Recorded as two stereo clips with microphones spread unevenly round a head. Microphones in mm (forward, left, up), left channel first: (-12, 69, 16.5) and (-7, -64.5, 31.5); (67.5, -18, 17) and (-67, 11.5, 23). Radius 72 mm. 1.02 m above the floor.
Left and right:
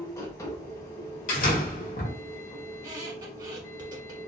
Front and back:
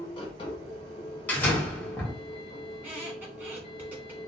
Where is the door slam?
65° left, 1.3 m.